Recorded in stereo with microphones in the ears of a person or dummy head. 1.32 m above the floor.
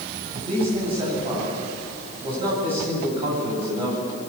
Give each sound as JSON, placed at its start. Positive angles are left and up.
{"t": 0.3, "sound": "a man speaking", "side_deg": -30, "distance_m": 8.5}